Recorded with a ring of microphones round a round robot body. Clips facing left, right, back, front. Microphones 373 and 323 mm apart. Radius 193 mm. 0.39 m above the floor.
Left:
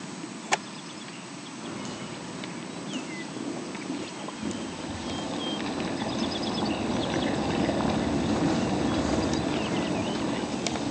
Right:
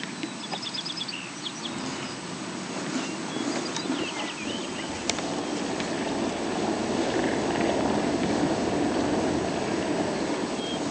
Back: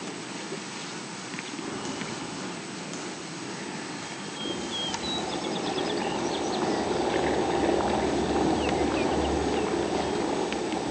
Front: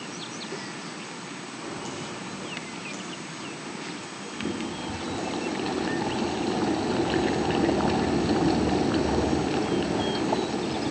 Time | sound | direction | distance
1.6 | footsteps | 125° left | 10 m
4.3 | boiling | 45° left | 7.5 m